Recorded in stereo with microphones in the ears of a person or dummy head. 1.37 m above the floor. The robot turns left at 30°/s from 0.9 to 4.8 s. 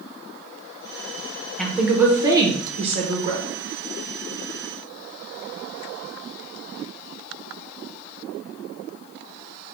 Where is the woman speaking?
5° left, 0.8 m; by 3.4 s 50° right, 0.8 m.